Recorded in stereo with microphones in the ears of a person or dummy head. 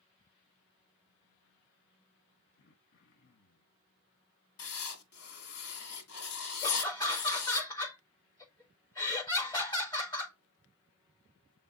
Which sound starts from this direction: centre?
Laughter, at 6.6 s.